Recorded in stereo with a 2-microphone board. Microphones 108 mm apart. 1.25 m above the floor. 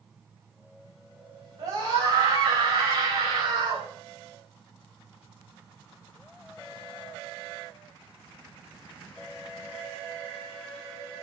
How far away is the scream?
About 6 m.